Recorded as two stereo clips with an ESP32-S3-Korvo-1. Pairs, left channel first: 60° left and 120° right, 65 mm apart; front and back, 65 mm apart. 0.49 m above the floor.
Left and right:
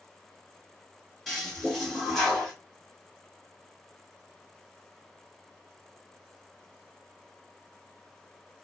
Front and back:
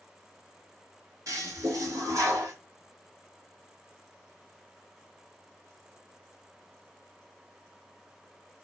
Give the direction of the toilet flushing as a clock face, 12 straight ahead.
7 o'clock.